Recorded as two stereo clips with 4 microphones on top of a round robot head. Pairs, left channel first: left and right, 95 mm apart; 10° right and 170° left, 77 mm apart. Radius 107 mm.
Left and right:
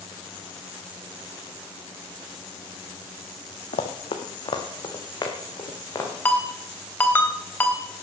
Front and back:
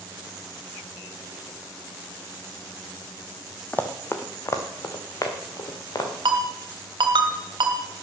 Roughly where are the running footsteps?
Ahead left.